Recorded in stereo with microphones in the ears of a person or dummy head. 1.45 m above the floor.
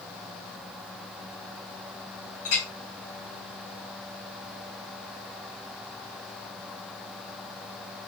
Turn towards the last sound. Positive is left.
turn(degrees=45)  # may be behind; listen again after turning